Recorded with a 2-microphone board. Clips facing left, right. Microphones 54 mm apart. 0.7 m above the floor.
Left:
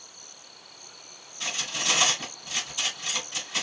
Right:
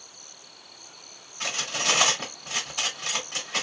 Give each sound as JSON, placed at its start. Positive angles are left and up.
{"t": 1.4, "sound": "cutlery clinking", "side_deg": -55, "distance_m": 1.7}